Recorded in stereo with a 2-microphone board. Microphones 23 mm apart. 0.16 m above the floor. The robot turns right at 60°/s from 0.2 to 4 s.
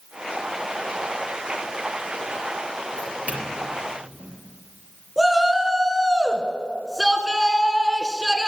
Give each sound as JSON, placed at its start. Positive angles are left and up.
{"t": 3.0, "sound": "a doorbell", "side_deg": -50, "distance_m": 4.5}
{"t": 5.2, "sound": "a shout", "side_deg": 0, "distance_m": 1.4}